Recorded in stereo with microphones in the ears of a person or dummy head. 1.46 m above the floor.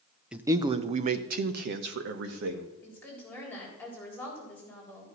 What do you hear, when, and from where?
0.3 s a man speaking: centre (ahead or behind), 0.6 m; by 2.7 s 65° right (ahead or behind), 1.6 m
2.8 s a woman speaking: 15° left (ahead or behind), 4 m